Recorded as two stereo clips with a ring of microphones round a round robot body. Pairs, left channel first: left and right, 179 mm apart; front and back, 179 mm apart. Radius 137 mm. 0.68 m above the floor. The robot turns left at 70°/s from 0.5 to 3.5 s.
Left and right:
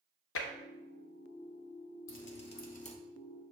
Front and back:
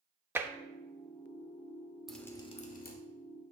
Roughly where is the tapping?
Left.